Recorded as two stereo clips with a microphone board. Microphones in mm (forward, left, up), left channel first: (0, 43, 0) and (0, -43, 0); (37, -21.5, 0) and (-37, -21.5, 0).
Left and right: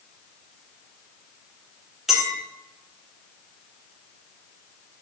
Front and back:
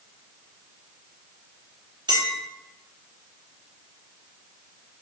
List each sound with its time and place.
2.1 s a clink: 175° right, 1.1 m